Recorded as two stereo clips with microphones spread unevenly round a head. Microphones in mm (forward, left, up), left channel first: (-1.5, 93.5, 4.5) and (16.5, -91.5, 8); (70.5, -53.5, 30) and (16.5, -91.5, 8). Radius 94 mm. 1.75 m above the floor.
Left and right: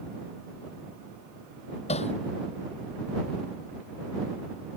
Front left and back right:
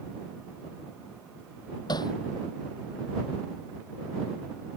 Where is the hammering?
40° left.